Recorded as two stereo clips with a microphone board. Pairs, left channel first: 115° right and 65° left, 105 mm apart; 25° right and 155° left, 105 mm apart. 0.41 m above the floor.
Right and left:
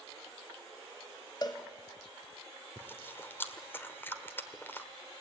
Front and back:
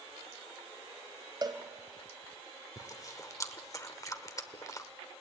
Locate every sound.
1.4 s a cowbell: 155° right, 1.6 m
2.8 s chewing: 55° right, 1.3 m